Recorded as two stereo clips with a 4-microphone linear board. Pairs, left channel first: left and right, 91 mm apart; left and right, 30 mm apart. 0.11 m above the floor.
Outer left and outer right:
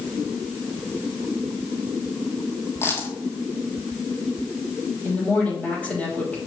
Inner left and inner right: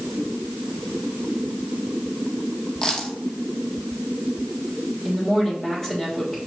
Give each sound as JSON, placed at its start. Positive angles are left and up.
{"t": 2.8, "sound": "a dropped coin", "side_deg": 25, "distance_m": 1.4}
{"t": 5.0, "sound": "a woman speaking", "side_deg": 15, "distance_m": 3.5}